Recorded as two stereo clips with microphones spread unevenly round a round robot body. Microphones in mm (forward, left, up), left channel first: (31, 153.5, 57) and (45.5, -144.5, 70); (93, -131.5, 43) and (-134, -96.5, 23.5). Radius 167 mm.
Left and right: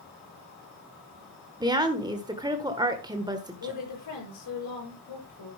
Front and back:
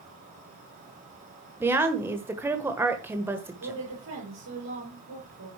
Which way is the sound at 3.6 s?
125° left.